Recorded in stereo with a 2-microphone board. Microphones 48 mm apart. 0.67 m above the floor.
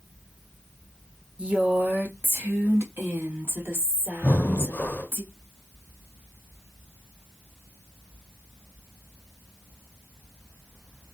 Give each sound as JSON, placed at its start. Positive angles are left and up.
{"t": 1.4, "sound": "a woman speaking", "side_deg": -20, "distance_m": 0.9}
{"t": 4.2, "sound": "breathing", "side_deg": 40, "distance_m": 0.5}